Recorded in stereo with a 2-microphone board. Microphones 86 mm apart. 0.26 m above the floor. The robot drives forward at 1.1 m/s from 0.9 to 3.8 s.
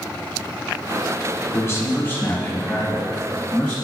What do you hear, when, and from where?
1.5 s a man speaking: 35° left (ahead or behind), 1.1 m; by 3.8 s 15° left (ahead or behind), 3 m